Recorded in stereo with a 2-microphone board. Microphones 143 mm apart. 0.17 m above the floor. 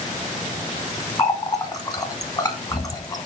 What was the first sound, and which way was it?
A running tap, 25° left (ahead or behind).